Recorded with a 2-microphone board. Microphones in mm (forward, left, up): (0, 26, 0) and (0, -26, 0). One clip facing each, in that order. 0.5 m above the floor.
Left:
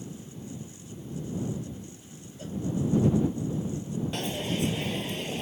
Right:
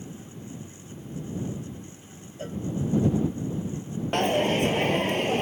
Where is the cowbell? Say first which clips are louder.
Right 3 dB; 40° right (ahead or behind).